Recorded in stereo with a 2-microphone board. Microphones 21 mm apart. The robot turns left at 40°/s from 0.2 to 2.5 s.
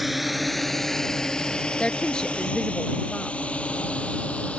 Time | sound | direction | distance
0.0 | a drone | 5° right (ahead or behind) | ?
1.8 | a woman speaking | 55° left (ahead or behind) | ?